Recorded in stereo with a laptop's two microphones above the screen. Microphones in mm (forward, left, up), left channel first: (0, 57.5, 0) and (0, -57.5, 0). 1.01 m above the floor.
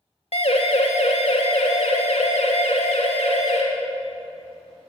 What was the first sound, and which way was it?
A siren, 65° left (ahead or behind).